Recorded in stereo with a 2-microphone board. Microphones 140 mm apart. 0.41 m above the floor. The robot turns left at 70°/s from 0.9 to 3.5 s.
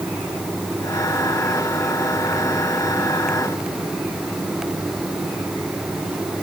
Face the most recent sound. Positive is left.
No sound to turn to.